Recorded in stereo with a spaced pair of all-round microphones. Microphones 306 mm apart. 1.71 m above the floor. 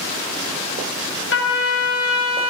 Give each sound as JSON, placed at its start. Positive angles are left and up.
{"t": 1.3, "sound": "a trumpet", "side_deg": 45, "distance_m": 1.0}